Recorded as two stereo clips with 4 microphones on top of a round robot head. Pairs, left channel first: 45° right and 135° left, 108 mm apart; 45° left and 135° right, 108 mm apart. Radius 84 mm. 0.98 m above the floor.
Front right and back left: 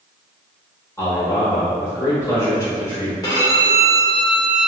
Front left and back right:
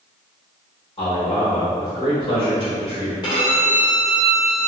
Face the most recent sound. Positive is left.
turn(degrees=5)